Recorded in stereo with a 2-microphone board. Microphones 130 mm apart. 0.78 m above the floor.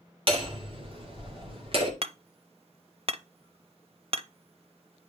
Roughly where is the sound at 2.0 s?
Right.